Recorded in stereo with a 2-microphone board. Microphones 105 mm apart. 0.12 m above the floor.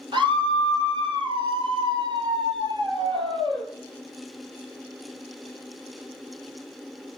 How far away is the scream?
About 2.5 m.